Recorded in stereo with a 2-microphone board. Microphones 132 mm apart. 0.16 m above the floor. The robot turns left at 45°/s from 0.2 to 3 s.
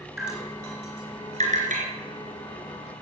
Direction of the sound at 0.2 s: Centre (ahead or behind).